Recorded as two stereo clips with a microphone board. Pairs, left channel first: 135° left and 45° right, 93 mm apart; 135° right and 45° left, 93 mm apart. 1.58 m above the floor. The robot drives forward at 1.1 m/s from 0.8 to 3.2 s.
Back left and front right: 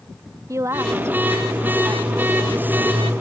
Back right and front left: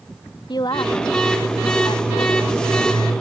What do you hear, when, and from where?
0.5 s a woman speaking: 100° right; by 2.6 s 130° right